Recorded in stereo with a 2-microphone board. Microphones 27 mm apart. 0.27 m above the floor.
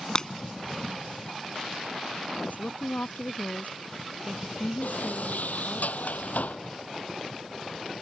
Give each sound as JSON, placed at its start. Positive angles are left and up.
{"t": 0.1, "sound": "breaking glass", "side_deg": 30}
{"t": 2.4, "sound": "a woman speaking", "side_deg": 80}
{"t": 4.8, "sound": "a sliding door", "side_deg": 75}